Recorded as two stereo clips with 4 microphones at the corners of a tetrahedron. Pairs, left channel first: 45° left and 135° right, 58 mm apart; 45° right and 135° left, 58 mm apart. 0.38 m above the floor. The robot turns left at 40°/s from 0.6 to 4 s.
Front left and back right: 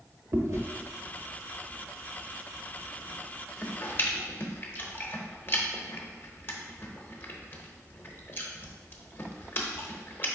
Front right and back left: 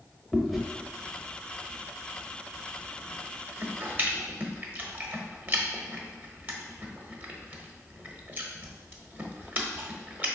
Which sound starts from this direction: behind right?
Chewing, at 0.3 s.